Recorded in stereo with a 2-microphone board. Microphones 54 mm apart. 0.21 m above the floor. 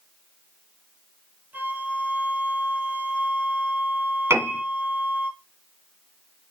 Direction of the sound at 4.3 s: 50° right (ahead or behind).